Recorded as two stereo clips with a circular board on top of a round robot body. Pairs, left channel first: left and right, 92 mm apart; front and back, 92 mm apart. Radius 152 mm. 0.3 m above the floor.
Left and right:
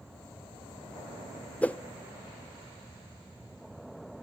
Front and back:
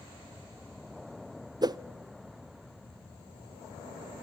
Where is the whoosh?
160° left, 0.6 m.